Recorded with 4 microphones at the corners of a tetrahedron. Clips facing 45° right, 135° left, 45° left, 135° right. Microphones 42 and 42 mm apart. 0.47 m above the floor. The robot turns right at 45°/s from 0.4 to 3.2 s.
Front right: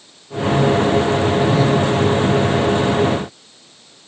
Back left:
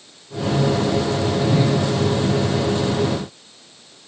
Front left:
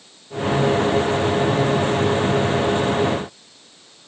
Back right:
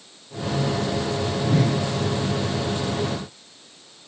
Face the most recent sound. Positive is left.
turn(degrees=-85)